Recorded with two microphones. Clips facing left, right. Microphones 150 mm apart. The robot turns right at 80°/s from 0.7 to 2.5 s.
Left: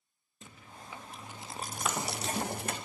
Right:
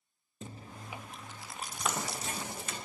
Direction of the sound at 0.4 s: 35° right.